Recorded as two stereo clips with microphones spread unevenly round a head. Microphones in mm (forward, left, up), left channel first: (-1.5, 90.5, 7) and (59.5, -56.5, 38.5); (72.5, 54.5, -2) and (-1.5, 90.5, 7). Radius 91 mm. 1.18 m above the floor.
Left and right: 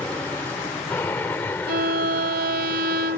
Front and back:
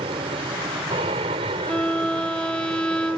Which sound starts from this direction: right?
A violin, at 1.7 s.